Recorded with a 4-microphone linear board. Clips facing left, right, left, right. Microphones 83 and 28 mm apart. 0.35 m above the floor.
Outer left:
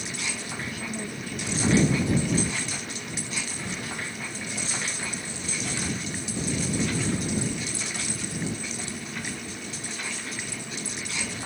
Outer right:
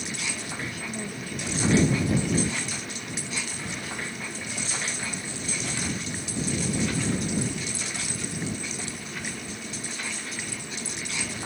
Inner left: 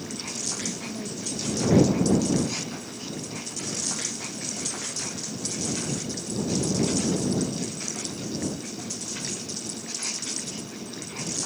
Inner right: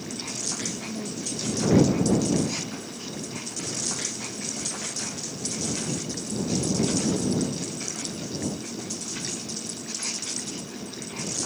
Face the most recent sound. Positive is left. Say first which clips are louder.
# even, inner right 1 dB
turn(degrees=0)  # may be behind; listen again after turning